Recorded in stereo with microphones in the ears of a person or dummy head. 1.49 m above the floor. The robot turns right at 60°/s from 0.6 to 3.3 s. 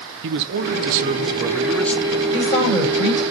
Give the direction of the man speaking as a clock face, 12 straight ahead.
2 o'clock.